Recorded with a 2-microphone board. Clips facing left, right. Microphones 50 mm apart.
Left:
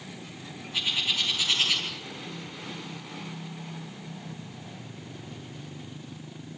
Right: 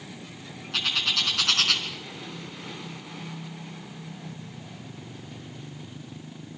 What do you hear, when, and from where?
0.7 s a bird: 75° right (ahead or behind), 4.5 m